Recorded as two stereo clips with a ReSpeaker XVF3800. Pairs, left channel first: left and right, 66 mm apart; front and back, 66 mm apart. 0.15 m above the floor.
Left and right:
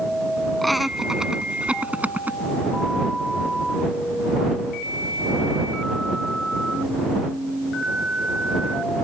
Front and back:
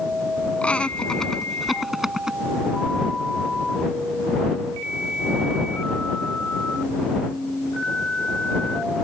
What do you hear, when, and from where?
0.6 s laughter: 5° left; by 2.4 s 110° right